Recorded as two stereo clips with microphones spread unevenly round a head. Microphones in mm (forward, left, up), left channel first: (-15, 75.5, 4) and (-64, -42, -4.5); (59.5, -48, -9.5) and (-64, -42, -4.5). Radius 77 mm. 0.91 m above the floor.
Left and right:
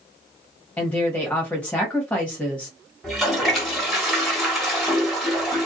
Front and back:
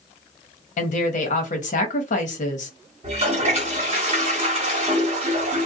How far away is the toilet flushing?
About 1.3 m.